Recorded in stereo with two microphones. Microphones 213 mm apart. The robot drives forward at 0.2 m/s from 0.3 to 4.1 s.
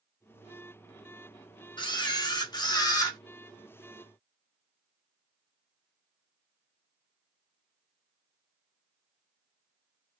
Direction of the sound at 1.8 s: 20° left (ahead or behind).